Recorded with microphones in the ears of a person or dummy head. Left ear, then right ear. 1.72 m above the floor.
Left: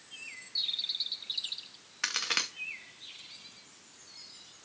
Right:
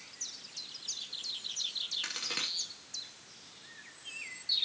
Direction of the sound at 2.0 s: 35° left (ahead or behind).